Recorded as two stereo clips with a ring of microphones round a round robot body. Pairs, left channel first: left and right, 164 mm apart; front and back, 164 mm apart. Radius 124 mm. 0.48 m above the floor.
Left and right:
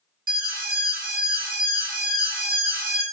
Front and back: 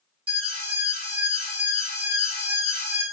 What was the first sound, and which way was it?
An alarm, 120° right.